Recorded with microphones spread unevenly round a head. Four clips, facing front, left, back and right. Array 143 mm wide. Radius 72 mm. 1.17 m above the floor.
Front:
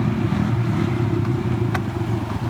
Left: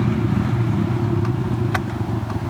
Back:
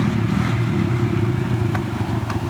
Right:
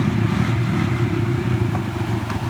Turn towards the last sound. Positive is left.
No sound to turn to.